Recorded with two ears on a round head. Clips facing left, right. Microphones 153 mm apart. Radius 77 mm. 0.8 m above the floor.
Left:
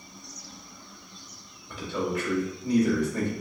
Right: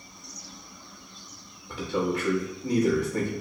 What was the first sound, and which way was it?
A man speaking, 40° right (ahead or behind).